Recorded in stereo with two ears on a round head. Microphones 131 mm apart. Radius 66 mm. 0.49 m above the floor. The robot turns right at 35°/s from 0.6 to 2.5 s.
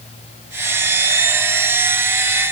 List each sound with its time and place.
Only background noise.